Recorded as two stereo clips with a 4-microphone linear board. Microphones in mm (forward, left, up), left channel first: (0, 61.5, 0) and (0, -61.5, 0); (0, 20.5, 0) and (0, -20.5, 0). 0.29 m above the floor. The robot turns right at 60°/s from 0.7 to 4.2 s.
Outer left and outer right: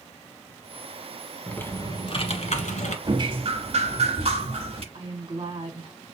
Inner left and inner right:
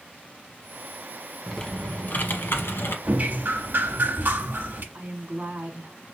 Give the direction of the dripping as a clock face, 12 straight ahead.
5 o'clock.